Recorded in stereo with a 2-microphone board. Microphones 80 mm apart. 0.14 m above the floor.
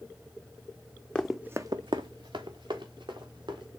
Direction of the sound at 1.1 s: 15° left (ahead or behind).